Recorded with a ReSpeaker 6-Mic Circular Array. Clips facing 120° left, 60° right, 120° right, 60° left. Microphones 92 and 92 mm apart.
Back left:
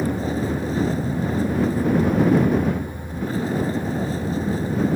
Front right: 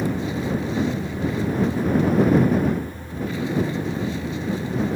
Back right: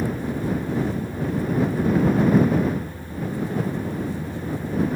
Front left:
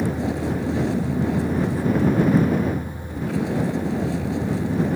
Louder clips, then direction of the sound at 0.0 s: Back left 1 dB, front left 2 dB; 70° left.